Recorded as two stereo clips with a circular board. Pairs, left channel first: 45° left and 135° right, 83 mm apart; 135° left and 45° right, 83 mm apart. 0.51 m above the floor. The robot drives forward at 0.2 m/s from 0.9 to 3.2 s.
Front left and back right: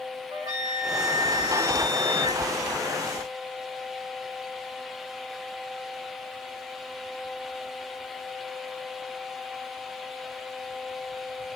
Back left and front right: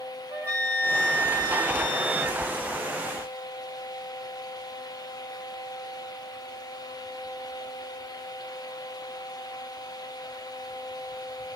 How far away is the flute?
About 3.5 m.